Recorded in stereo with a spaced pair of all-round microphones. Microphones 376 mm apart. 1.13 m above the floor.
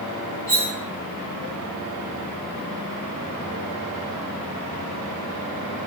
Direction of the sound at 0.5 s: 55° left (ahead or behind).